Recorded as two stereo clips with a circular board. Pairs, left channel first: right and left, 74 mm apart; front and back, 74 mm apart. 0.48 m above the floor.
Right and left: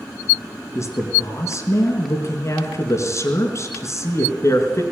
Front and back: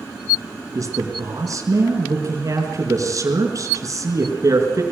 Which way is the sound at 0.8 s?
140° right.